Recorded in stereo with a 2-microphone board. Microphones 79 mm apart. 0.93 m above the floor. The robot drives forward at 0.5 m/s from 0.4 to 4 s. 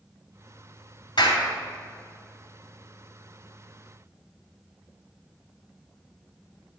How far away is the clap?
About 2.5 m.